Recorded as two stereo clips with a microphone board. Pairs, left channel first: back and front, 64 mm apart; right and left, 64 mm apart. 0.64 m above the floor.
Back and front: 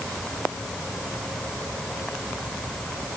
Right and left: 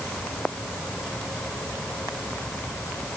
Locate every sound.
Only background noise.